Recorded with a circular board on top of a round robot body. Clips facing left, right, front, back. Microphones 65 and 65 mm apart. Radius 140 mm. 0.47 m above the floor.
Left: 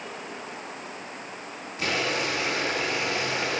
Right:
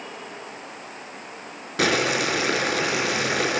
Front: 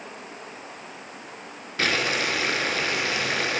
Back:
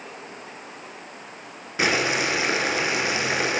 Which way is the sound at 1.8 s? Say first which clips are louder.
Right 6 dB, back 2 dB; 105° right.